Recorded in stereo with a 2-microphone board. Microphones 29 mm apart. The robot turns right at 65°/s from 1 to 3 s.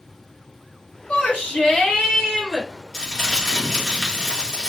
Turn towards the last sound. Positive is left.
turn(degrees=5)  # may be behind; listen again after turning